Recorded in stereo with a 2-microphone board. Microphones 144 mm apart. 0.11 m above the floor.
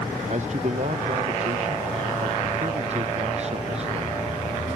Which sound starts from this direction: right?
A man speaking, at 0.3 s.